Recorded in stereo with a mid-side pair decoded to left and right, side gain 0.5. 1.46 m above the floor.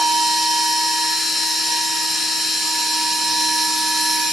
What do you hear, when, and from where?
0.0 s a machine running: 10° left, 4.5 m